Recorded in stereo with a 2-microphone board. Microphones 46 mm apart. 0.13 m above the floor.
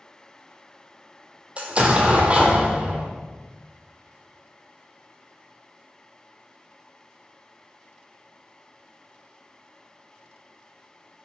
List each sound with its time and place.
1.6 s an explosion: 30° right (ahead or behind), 0.7 m